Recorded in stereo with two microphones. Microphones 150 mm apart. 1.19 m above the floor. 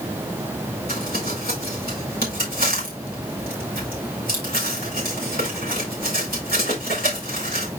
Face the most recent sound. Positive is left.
turn(degrees=80)